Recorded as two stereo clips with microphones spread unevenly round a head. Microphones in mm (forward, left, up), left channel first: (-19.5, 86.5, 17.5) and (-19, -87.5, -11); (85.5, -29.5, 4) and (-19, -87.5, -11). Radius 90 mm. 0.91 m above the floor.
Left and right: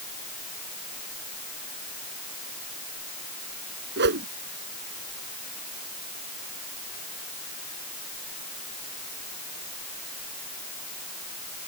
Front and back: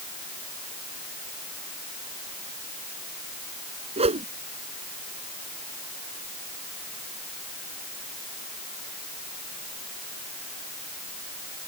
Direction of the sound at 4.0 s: 115° right.